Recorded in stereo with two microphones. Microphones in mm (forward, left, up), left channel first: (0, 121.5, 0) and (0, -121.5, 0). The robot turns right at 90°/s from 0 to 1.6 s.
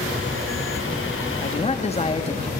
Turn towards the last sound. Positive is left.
turn(degrees=25)  # may be behind; listen again after turning